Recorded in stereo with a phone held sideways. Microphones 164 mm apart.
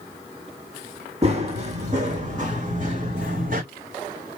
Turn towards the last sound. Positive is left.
turn(degrees=-55)  # may be behind; listen again after turning